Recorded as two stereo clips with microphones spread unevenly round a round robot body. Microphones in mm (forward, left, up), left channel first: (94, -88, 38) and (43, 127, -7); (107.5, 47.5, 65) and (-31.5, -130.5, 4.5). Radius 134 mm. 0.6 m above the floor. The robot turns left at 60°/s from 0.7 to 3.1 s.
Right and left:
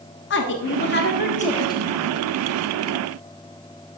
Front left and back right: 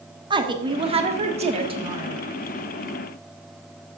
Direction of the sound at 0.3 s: 95° right.